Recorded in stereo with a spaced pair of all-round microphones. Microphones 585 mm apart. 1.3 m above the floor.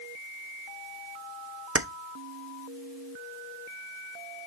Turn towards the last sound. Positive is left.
turn(degrees=-25)  # may be behind; listen again after turning